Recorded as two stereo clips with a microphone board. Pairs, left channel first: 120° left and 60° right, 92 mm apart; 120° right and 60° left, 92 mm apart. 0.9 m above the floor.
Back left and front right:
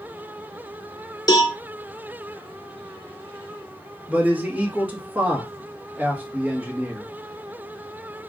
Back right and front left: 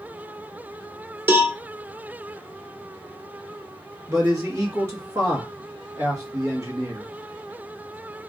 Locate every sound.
1.3 s a cowbell: 115° left, 0.7 m
4.1 s a man speaking: 10° left, 1.2 m